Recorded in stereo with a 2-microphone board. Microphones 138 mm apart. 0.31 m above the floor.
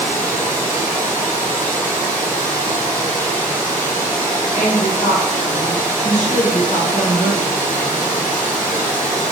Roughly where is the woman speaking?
Left.